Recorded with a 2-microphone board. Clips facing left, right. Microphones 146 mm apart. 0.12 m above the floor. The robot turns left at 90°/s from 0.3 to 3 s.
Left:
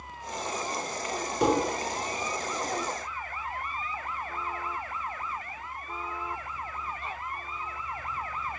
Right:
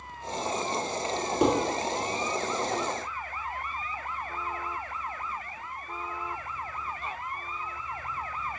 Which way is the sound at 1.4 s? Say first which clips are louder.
Right 1 dB; 25° right (ahead or behind).